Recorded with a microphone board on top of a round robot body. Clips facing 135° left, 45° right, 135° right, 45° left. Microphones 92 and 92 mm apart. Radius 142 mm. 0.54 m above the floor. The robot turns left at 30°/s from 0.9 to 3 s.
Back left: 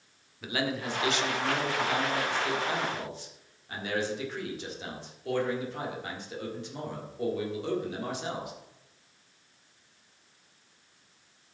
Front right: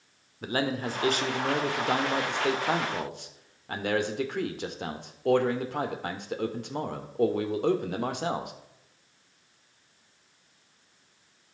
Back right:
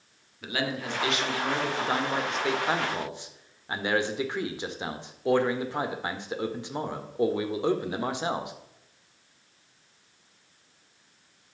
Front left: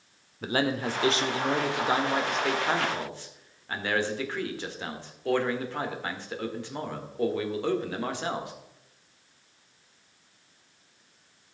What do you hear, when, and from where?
0.4 s a man speaking: straight ahead, 1.9 m; by 8.5 s 65° right, 1.9 m